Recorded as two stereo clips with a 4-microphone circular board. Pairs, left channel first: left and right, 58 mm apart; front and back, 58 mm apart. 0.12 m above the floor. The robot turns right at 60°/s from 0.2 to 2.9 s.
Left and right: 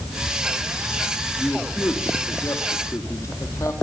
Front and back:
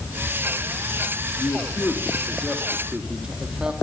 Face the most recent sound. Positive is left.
turn(degrees=105)